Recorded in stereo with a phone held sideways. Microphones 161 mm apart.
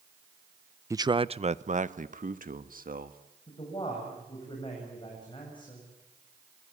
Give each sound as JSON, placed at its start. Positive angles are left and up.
{"t": 0.9, "sound": "a man speaking", "side_deg": -15, "distance_m": 0.5}
{"t": 3.5, "sound": "a man speaking", "side_deg": 30, "distance_m": 8.0}